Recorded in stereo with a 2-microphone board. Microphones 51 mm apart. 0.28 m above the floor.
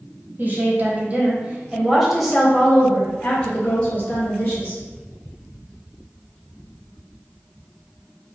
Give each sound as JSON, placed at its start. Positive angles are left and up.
{"t": 0.4, "sound": "a woman speaking", "side_deg": -40, "distance_m": 1.2}